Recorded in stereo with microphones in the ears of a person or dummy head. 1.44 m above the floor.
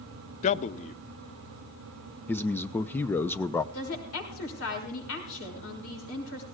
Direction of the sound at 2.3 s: 10° left (ahead or behind).